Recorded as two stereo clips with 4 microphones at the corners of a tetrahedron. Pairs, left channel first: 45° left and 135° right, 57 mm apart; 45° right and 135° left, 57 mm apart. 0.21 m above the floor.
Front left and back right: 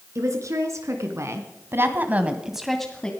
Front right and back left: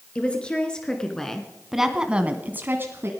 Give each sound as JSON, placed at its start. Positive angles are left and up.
{"t": 0.1, "sound": "a woman speaking", "azimuth_deg": -115, "distance_m": 3.5}